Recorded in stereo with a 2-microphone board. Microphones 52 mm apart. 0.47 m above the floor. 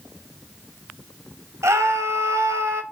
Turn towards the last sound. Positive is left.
turn(degrees=-70)  # may be behind; listen again after turning